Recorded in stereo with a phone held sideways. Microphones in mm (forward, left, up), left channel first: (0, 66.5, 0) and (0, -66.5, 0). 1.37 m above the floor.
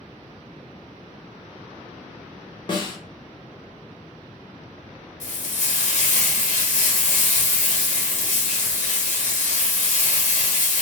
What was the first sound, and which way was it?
A snare drum, 35° left (ahead or behind).